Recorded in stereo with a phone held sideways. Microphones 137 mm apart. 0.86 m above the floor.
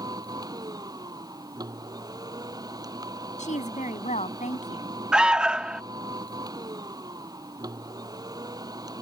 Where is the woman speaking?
70° left (ahead or behind).